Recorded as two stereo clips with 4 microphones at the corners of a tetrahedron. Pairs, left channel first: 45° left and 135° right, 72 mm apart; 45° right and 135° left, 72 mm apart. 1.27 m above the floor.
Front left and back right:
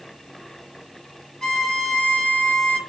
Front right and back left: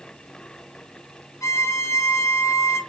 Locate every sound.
1.4 s a violin: 40° right, 0.7 m